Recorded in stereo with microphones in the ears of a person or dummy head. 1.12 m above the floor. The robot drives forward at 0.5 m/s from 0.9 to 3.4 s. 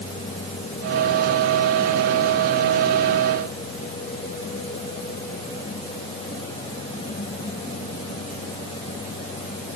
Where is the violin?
I don't hear a violin.